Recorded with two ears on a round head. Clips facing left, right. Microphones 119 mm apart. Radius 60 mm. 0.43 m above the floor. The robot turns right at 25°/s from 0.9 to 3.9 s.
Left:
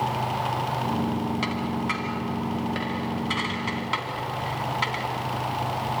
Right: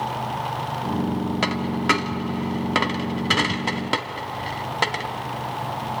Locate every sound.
1.4 s a dropped coin: 65° right (ahead or behind), 1.2 m; by 5.0 s 50° right (ahead or behind), 1.2 m